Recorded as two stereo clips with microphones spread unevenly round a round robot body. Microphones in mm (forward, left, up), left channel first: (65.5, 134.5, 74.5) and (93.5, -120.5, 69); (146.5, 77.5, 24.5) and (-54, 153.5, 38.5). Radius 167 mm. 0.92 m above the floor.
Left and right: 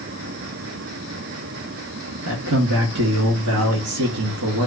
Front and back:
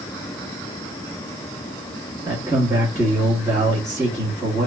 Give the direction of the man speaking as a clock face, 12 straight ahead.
4 o'clock.